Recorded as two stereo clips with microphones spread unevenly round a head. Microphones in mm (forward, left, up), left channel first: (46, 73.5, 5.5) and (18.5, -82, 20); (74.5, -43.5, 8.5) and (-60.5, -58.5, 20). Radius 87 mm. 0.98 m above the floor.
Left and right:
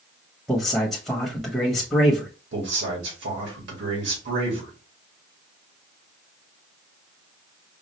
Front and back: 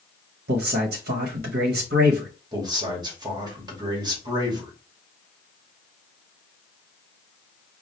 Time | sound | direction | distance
0.5 | a man speaking | 170° left | 0.9 m
2.5 | a man speaking | 115° right | 2 m